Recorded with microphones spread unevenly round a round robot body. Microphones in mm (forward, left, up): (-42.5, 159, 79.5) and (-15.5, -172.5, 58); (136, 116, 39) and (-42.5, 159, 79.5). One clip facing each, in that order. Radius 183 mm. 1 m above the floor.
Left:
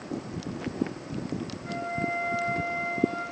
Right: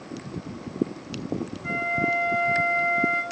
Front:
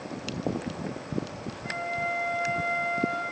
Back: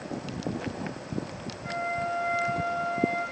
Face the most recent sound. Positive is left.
turn(degrees=-75)